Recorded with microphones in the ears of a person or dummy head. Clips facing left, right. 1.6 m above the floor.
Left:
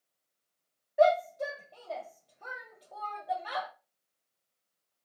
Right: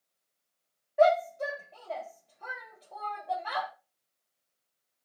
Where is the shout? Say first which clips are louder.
Right 1 dB; 5° left (ahead or behind), 0.8 m.